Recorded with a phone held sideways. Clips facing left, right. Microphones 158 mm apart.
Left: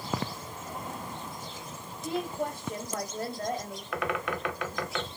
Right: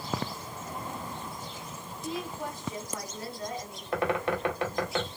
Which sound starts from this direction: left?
A woman speaking, at 2.0 s.